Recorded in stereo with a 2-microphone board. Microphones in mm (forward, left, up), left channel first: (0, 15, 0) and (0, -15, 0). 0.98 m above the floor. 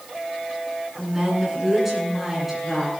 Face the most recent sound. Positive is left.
turn(degrees=-5)  # may be behind; listen again after turning